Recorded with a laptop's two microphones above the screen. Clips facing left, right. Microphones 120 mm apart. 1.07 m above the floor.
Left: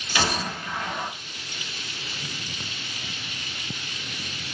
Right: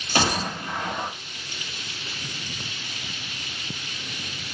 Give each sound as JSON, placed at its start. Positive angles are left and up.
{"t": 0.1, "sound": "a gunshot", "side_deg": -40, "distance_m": 1.1}